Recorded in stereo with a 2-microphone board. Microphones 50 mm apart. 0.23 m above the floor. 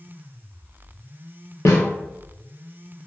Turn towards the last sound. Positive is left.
turn(degrees=85)